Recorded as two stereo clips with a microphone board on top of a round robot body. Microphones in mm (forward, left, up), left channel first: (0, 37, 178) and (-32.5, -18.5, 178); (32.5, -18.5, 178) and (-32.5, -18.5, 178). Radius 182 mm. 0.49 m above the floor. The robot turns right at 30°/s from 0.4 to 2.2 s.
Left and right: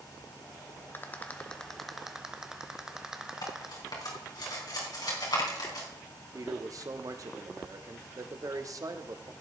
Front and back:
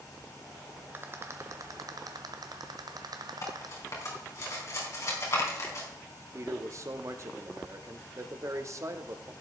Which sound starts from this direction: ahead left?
Cutlery clinking, at 3.4 s.